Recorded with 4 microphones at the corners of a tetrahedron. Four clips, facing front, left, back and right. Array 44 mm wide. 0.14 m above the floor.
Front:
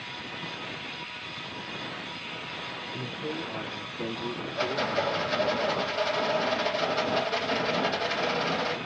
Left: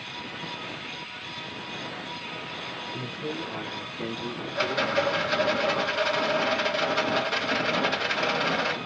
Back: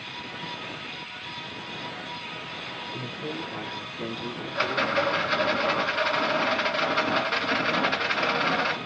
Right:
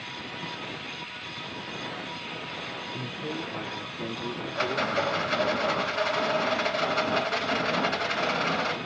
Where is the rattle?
175° left, 1.7 m.